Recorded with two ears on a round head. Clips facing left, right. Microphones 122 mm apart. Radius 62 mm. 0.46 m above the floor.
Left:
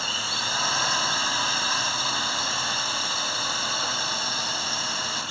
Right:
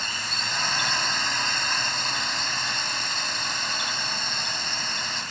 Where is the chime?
I don't hear a chime.